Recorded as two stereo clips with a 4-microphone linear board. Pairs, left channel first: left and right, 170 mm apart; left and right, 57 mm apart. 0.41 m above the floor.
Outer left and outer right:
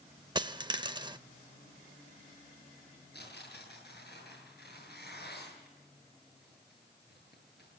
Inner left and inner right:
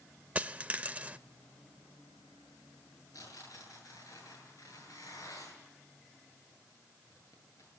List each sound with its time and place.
0.3 s a dropped coin: 25° right (ahead or behind), 0.5 m
3.1 s tearing paper: 75° left (ahead or behind), 8 m